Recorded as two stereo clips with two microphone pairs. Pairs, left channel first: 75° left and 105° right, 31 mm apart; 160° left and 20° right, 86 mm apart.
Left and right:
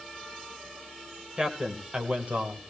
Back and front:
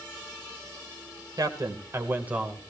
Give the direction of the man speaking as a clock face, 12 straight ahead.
2 o'clock.